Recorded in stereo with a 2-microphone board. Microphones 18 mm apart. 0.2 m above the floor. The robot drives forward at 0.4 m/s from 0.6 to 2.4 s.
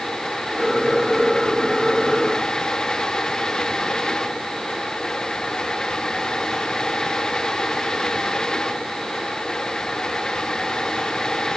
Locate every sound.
Only background noise.